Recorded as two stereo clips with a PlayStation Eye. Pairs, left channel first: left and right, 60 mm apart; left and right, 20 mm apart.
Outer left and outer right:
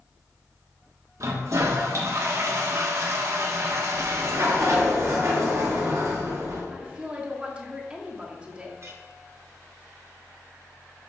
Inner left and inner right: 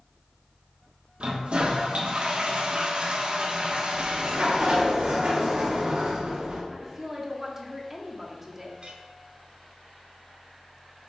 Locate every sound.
1.2 s a toilet flushing: 60° right (ahead or behind), 1.1 m
3.9 s a sliding door: 55° right (ahead or behind), 2 m
6.7 s a woman speaking: 15° right (ahead or behind), 1.3 m
8.8 s a clink: 50° right (ahead or behind), 1.2 m